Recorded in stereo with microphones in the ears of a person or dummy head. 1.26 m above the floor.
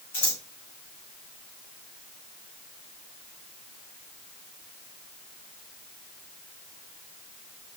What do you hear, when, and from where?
0.1 s scissors: 30° left (ahead or behind), 1.6 m